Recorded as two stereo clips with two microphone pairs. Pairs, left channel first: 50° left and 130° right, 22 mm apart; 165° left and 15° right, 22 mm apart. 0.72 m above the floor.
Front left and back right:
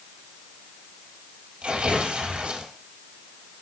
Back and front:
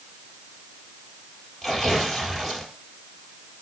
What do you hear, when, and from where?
1.6 s tearing paper: 105° right, 4.5 m